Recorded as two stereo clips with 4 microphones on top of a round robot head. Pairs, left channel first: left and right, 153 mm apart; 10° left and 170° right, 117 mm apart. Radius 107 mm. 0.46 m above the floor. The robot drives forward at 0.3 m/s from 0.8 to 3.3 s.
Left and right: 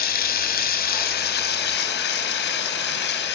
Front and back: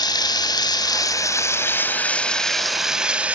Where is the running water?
65° left, 1.0 m; by 3.3 s 110° left, 1.0 m.